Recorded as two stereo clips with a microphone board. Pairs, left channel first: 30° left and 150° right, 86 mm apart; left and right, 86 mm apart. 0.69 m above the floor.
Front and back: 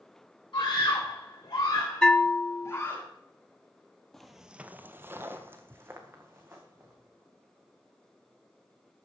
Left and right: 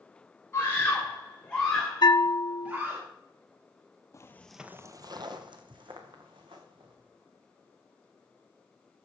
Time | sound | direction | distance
0.5 | a scream | 35° left | 2.0 m
2.0 | a bell | 110° left | 0.6 m
4.1 | footsteps | 115° left | 0.8 m